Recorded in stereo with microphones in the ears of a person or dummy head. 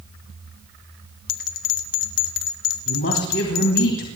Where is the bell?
80° left, 1.2 m.